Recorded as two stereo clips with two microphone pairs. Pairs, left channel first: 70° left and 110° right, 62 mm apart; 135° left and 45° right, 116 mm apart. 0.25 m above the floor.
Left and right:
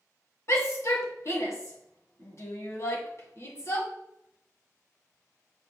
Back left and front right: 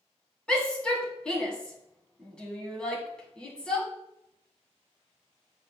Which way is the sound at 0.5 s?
55° left.